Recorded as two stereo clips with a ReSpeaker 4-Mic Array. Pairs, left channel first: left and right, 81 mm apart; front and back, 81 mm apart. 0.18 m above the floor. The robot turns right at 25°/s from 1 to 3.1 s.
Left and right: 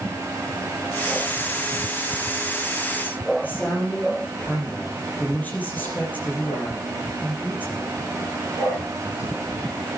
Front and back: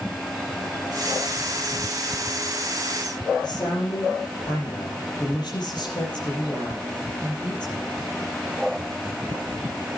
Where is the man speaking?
25° left, 4.5 m.